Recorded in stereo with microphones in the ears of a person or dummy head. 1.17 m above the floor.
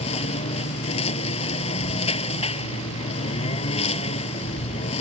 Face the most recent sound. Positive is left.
turn(degrees=35)  # may be behind; listen again after turning